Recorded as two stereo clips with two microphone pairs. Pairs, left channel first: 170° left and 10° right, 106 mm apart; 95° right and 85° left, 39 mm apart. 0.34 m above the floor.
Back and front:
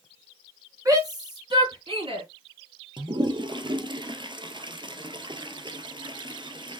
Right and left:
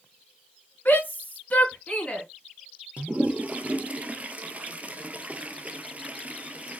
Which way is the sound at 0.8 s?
65° right.